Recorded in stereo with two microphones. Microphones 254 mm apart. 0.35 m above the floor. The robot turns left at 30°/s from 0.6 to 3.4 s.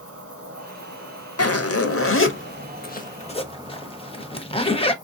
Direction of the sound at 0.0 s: 80° right.